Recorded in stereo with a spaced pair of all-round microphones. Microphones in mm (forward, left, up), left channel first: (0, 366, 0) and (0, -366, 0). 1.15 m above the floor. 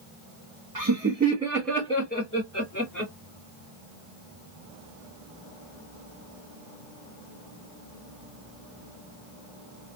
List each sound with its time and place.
0.8 s laughter: 30° right (ahead or behind), 1.0 m; by 3.1 s 25° left (ahead or behind), 1.8 m